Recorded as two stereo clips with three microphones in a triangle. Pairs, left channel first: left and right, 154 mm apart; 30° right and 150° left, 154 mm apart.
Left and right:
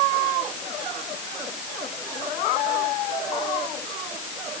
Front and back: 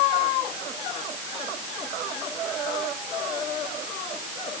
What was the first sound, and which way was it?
Only background noise.